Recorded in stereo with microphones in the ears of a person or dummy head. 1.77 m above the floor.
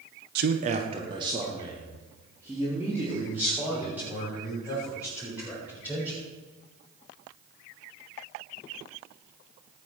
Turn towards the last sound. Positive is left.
turn(degrees=-10)  # may be behind; listen again after turning